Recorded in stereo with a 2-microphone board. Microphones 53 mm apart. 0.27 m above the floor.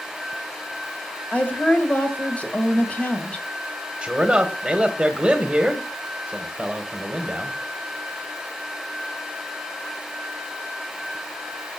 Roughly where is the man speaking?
Right.